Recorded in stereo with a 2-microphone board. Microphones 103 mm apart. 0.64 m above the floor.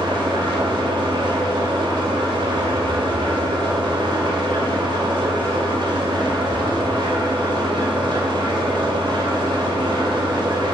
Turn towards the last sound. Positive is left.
turn(degrees=-55)  # may be behind; listen again after turning